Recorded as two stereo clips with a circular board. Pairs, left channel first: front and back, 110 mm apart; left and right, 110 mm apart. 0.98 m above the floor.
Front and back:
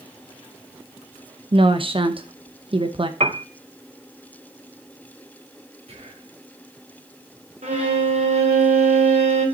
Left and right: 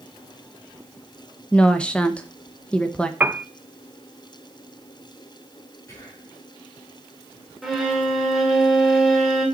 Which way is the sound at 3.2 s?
165° right.